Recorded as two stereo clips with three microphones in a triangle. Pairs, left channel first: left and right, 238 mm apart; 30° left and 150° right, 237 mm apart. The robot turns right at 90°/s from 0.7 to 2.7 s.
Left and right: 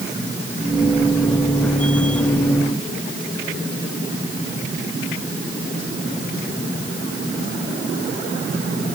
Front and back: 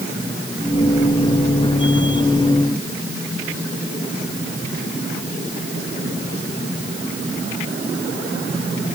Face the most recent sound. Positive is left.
No sound to turn to.